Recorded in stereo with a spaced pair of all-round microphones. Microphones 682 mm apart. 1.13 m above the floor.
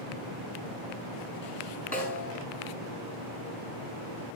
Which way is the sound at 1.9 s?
10° left (ahead or behind).